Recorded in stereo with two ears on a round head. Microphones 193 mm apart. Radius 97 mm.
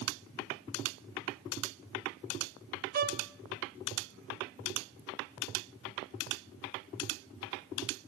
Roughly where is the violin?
Right.